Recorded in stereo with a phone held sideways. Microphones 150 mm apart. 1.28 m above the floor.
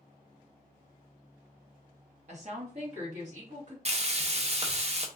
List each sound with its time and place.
2.3 s a woman speaking: 50° right (ahead or behind), 1.1 m
3.9 s frying: 45° right (ahead or behind), 0.5 m